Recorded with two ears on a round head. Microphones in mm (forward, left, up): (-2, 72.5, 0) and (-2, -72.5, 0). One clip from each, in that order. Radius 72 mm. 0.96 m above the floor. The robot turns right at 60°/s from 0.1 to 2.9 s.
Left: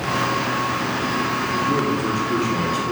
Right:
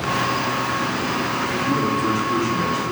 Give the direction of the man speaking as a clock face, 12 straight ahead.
2 o'clock.